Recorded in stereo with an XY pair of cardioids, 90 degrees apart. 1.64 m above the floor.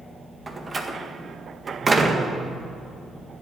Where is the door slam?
30° right, 1.7 m.